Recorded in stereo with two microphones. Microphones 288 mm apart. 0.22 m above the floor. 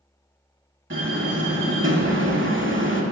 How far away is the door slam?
About 0.9 m.